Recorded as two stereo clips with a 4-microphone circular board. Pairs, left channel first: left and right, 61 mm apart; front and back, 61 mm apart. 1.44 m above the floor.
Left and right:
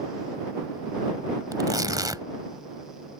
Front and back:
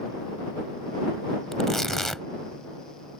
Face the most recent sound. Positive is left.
turn(degrees=-85)